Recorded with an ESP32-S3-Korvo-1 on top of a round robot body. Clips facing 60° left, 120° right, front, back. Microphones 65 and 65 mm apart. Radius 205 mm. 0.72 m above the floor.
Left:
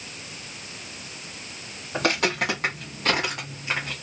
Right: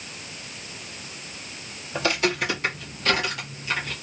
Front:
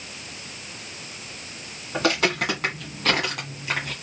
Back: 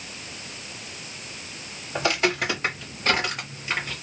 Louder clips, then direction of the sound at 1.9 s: Even, front 1 dB; 25° left.